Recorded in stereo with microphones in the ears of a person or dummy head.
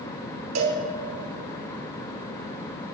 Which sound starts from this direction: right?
A cowbell, at 0.6 s.